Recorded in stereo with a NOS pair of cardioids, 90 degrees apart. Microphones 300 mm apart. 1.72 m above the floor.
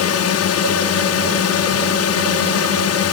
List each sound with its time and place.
0.0 s a drone: 55° left